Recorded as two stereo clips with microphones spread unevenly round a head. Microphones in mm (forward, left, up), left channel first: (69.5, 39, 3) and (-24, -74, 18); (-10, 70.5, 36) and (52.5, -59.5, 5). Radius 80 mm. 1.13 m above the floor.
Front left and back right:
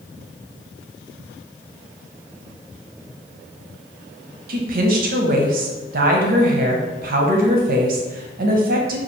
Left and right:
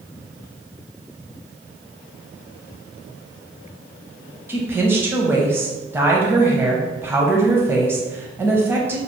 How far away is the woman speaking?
About 0.8 m.